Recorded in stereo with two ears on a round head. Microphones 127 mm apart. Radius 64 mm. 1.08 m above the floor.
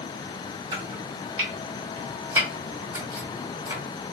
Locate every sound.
0.7 s chopping: 20° right (ahead or behind), 1.7 m